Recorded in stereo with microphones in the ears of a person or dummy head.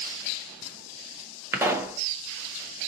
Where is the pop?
15° right (ahead or behind), 0.6 m.